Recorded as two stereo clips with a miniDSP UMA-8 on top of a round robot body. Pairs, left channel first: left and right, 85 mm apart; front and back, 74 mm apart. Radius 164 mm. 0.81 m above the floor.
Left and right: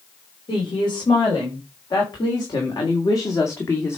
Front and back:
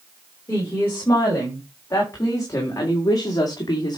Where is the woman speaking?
60° left, 4.5 m; by 4.0 s 30° left, 1.9 m.